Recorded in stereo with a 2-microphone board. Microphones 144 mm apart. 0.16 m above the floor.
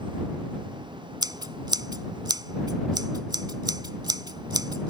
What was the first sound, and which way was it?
Scissors, 30° right (ahead or behind).